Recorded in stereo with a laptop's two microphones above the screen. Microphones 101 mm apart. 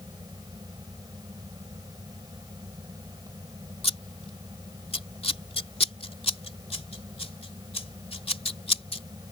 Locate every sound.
0.0 s a fan: 40° right (ahead or behind)
3.8 s scissors: 80° left